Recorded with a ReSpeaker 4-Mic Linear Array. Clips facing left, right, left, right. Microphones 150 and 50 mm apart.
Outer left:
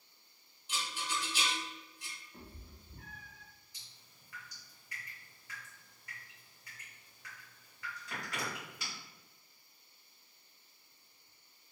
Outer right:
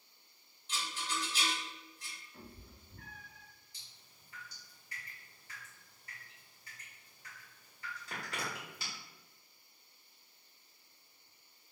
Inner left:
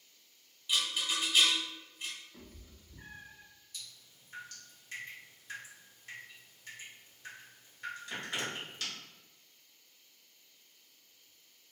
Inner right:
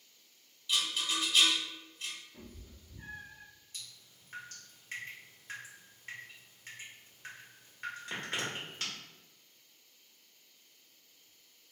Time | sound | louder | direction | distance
0.7 | a rattle | outer left 1 dB, even | 15° left (ahead or behind) | 0.9 m
2.3 | a cat meowing | outer right 1 dB, inner right 2 dB | 25° left (ahead or behind) | 0.7 m
3.7 | dripping | even, even | 35° right (ahead or behind) | 1.2 m